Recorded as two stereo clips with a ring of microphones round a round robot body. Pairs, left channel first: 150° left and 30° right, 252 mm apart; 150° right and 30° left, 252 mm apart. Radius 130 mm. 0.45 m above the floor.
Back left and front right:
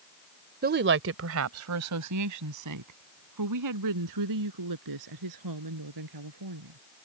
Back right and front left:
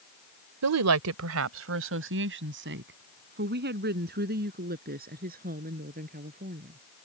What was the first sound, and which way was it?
A woman speaking, 20° left.